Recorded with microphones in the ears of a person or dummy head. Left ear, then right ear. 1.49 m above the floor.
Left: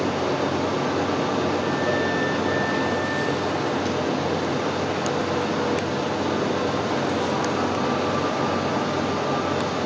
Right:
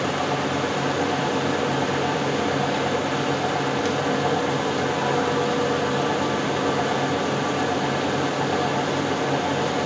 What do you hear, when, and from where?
0.0 s a fan: 40° right (ahead or behind), 1.3 m